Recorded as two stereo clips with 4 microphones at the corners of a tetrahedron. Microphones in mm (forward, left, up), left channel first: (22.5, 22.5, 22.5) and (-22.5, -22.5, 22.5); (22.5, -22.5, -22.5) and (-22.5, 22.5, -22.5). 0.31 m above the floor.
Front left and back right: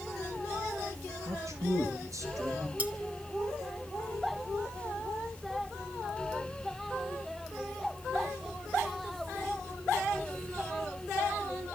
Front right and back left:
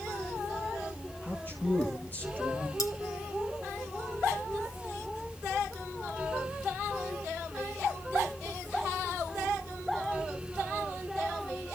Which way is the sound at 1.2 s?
100° right.